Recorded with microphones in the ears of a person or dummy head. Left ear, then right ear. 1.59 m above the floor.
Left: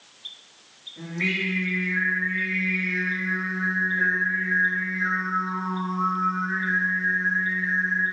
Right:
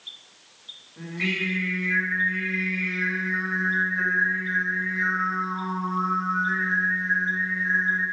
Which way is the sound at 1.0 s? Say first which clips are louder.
Left 1 dB; 30° right (ahead or behind).